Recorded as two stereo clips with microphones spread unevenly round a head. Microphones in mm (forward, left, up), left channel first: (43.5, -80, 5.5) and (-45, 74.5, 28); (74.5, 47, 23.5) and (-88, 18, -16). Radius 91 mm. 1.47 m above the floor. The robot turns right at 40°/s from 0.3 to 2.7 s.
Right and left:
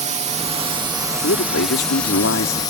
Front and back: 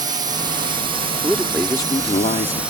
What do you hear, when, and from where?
0.0 s a drone: 160° left; by 2.7 s 105° right
1.2 s a man speaking: 85° right; by 2.6 s 30° right